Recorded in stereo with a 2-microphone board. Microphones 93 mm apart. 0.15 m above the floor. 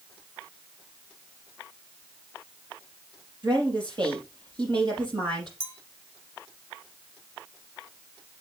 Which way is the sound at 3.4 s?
55° right (ahead or behind).